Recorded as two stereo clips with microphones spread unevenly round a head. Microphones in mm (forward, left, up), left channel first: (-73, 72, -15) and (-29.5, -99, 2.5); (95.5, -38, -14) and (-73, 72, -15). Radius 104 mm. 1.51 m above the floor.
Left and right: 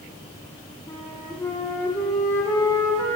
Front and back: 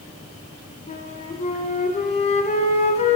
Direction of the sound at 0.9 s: 25° left.